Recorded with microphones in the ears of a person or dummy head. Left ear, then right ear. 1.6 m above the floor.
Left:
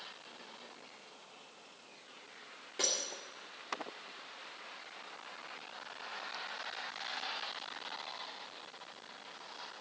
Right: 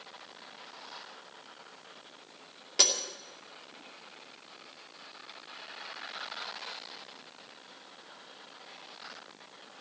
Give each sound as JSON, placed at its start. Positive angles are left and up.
{"t": 2.8, "sound": "breaking glass", "side_deg": -40, "distance_m": 2.5}